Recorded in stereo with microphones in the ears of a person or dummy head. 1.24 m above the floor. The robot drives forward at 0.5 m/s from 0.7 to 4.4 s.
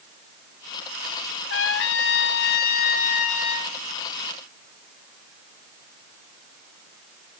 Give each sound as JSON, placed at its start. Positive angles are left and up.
{"t": 1.5, "sound": "a trumpet", "side_deg": 60, "distance_m": 0.8}